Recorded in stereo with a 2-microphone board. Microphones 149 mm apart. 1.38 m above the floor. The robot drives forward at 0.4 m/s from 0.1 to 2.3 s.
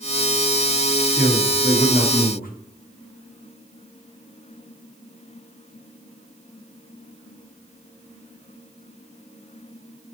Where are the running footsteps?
No running footsteps in this recording.